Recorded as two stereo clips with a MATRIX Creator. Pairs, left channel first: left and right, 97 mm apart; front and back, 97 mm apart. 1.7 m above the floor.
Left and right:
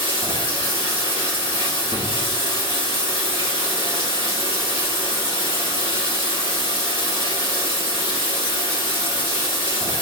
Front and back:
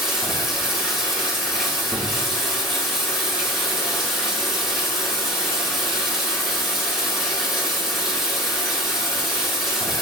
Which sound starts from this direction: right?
Running water, at 0.0 s.